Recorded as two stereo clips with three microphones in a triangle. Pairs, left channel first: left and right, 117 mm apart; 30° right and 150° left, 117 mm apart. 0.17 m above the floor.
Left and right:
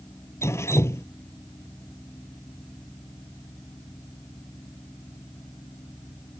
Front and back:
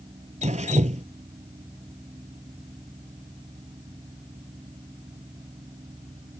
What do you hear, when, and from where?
0.4 s dripping: 155° left